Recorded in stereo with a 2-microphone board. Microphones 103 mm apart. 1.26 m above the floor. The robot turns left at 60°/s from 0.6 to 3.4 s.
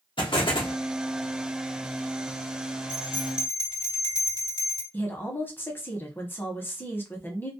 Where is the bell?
95° left, 1.2 m; by 4.8 s 65° left, 1.2 m.